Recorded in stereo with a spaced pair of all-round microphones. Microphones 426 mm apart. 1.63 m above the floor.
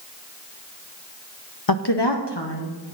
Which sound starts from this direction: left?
A woman speaking, at 1.7 s.